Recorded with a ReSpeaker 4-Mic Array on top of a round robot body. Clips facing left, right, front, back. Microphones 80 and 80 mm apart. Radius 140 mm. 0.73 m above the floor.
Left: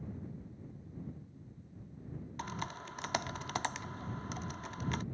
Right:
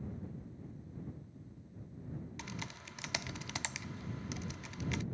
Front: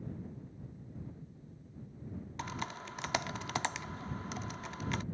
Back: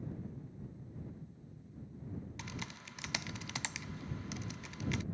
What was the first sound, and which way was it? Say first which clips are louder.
Typing on a keyboard: left 5 dB, front 6 dB; 45° left.